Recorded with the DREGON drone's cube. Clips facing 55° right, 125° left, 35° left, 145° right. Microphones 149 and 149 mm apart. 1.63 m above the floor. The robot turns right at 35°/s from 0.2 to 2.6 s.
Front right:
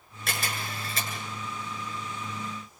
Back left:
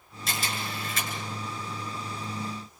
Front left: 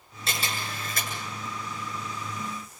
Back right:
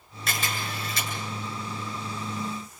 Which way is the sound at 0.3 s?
25° right.